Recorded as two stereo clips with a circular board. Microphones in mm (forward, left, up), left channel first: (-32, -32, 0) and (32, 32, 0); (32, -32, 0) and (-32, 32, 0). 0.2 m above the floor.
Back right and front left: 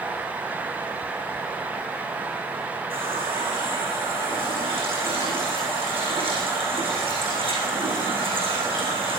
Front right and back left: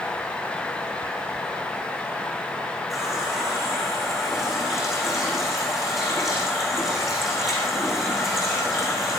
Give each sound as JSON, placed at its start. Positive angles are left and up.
{"t": 2.9, "sound": "a running tap", "azimuth_deg": 45, "distance_m": 7.5}